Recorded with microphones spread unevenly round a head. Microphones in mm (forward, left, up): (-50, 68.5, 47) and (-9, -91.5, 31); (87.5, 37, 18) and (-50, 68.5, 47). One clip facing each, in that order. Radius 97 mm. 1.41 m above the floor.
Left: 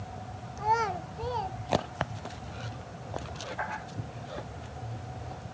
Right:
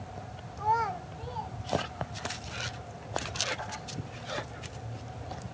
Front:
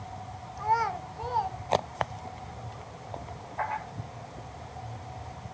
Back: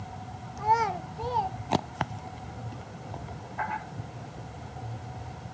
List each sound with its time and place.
0.6 s a child speaking: 175° left, 0.8 m; by 2.3 s 100° left, 2 m